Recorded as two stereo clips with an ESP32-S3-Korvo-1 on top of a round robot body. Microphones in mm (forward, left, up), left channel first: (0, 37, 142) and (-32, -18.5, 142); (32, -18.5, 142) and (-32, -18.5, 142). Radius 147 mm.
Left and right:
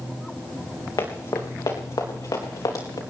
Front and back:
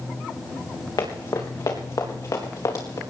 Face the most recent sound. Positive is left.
turn(degrees=35)